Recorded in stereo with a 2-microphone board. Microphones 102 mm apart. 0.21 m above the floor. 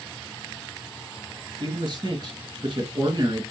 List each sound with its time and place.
1.6 s a man speaking: 45° right (ahead or behind), 2.5 m